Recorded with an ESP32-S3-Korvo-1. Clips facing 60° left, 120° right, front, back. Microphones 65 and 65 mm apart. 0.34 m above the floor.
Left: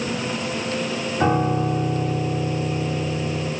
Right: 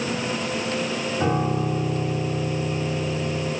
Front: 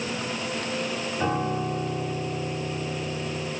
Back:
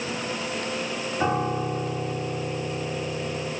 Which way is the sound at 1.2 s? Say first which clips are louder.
Left 4 dB, back 2 dB; 100° left.